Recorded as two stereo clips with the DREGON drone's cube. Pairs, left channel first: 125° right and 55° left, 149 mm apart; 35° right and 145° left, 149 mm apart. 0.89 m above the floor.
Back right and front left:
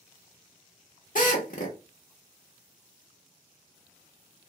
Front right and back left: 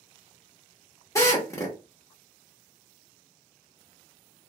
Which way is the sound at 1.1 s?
105° right.